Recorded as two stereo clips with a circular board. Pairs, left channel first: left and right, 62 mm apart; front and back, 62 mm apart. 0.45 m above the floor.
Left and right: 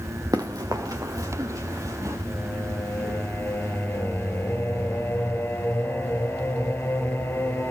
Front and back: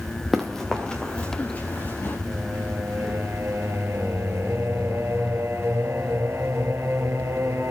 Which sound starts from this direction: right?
Running footsteps, at 0.3 s.